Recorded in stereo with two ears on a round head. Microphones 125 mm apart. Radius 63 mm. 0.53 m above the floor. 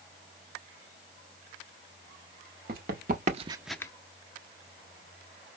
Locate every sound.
2.7 s running footsteps: 70° right (ahead or behind), 1.3 m; by 3.9 s 30° left (ahead or behind), 0.6 m